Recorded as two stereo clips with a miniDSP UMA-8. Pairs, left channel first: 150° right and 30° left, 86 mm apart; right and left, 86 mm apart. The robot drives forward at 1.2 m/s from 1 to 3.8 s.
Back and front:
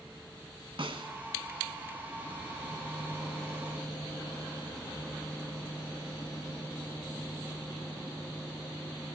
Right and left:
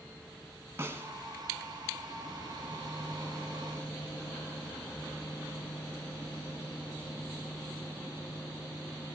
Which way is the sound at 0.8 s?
30° left.